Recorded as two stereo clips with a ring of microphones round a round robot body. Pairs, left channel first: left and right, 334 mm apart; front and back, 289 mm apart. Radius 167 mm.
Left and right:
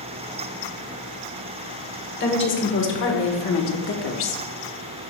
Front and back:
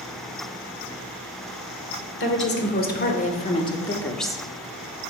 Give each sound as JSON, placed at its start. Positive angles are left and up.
{"t": 2.2, "sound": "a woman speaking", "azimuth_deg": 40, "distance_m": 1.8}